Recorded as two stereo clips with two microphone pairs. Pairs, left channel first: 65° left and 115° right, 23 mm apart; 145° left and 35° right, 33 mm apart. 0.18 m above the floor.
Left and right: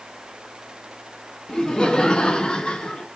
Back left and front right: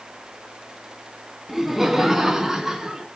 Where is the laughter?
45° left, 1.7 m; by 3.0 s 35° left, 2.5 m.